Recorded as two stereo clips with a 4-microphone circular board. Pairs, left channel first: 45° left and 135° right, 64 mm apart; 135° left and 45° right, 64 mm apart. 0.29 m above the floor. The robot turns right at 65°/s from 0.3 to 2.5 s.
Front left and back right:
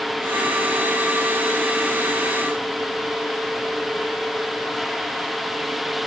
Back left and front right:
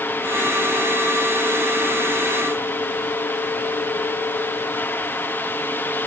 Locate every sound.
Only background noise.